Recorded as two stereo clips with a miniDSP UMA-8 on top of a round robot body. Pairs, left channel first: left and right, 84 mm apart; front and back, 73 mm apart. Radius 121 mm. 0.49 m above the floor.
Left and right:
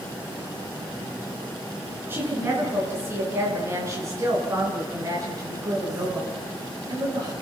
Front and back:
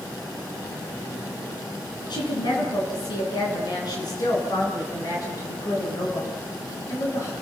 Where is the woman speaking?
25° right, 7 m; by 7.3 s 45° right, 8.5 m.